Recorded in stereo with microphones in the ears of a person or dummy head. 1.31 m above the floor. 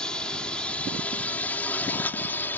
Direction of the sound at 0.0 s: 5° left (ahead or behind).